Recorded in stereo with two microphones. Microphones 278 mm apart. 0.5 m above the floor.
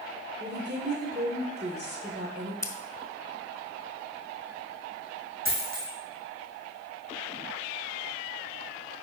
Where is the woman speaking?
35° right (ahead or behind), 2.0 m.